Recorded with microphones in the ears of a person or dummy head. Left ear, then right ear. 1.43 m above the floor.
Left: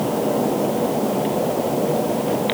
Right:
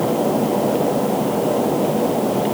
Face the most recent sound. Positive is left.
No sound to turn to.